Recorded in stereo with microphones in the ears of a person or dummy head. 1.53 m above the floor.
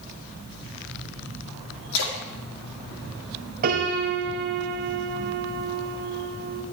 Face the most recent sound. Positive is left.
turn(degrees=-45)  # may be behind; listen again after turning